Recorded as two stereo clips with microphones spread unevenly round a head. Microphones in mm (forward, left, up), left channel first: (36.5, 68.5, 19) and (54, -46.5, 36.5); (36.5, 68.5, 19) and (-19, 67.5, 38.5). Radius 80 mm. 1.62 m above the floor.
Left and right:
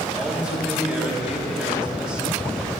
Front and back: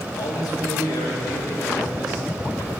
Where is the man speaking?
Straight ahead, 3 m.